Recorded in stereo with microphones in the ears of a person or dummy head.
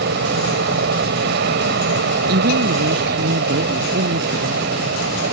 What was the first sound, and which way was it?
An aircraft, 60° right (ahead or behind).